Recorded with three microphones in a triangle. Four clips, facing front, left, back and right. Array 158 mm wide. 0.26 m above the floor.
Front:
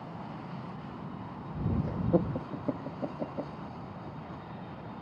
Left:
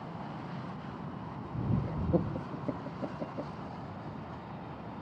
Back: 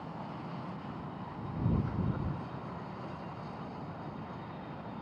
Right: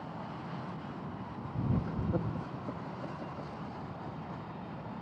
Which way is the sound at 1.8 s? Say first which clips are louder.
Left 3 dB, front 8 dB; 20° left.